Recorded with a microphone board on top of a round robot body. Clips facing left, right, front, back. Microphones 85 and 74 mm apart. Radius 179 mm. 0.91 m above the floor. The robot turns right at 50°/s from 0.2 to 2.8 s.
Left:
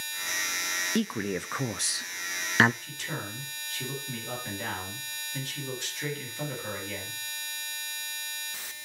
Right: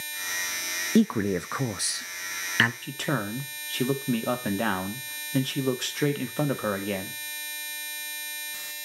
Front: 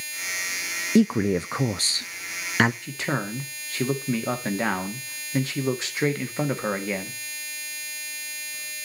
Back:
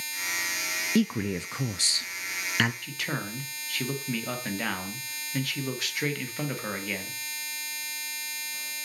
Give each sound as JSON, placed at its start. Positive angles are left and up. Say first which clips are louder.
{"t": 0.9, "sound": "a man speaking", "louder": "right 8 dB, front 7 dB", "azimuth_deg": -50, "distance_m": 0.6}
{"t": 2.8, "sound": "a man speaking", "louder": "right 8 dB, front 5 dB", "azimuth_deg": -60, "distance_m": 1.8}